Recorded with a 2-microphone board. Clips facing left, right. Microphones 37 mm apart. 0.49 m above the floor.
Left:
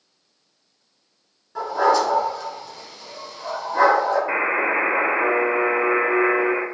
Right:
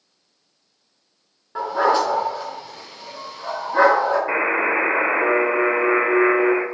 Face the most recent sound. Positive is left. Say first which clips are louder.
# right 1 dB
turn(degrees=-15)  # may be behind; listen again after turning